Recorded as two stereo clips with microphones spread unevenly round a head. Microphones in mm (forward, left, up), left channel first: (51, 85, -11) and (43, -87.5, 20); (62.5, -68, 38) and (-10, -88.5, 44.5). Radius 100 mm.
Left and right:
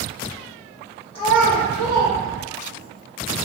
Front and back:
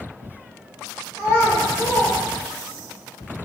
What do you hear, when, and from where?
1.1 s a child speaking: 130° left, 0.7 m; by 2.9 s 135° right, 1.5 m